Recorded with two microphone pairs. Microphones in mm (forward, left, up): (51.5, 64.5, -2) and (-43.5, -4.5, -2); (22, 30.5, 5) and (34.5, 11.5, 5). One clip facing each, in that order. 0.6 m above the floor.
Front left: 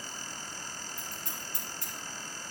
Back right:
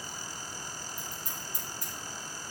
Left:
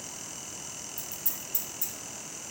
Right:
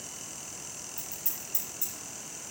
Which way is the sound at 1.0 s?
10° left.